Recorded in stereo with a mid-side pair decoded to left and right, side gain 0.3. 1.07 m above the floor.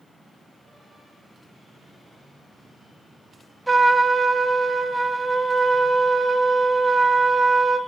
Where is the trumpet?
20° right, 0.5 m.